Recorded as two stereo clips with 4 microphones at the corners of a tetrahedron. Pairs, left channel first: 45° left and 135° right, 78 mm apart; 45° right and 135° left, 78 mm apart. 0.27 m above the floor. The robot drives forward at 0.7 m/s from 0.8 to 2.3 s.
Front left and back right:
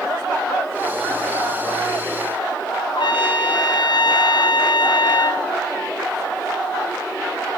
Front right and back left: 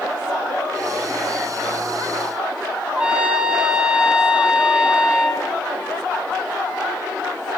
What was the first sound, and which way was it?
A trumpet, 55° left.